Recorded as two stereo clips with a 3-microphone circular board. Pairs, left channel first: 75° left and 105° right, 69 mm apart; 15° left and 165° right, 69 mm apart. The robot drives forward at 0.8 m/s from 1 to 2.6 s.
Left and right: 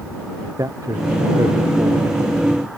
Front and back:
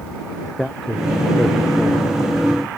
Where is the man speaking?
70° right; by 2.1 s 75° right.